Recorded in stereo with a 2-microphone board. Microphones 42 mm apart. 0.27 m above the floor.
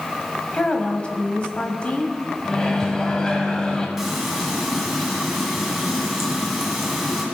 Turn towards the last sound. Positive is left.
turn(degrees=-5)  # may be behind; listen again after turning